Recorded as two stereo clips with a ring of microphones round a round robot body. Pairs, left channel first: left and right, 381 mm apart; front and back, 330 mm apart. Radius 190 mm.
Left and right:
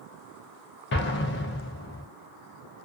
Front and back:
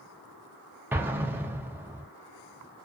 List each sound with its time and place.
0.9 s an explosion: 105° left, 0.6 m